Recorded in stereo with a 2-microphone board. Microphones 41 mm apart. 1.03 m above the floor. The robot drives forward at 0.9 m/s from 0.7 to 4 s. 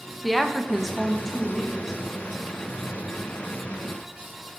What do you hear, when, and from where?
0.2 s a woman speaking: centre (ahead or behind), 0.6 m